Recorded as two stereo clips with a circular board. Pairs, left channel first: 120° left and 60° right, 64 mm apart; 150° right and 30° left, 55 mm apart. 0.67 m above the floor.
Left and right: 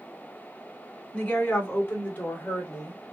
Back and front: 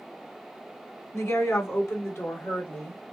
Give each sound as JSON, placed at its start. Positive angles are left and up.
{"t": 1.1, "sound": "a woman speaking", "azimuth_deg": -175, "distance_m": 2.0}